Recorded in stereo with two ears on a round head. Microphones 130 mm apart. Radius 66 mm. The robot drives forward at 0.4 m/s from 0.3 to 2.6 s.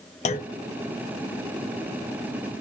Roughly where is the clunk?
Left.